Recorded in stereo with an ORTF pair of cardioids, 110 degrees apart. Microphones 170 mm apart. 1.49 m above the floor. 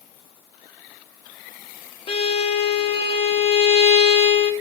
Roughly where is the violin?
Ahead left.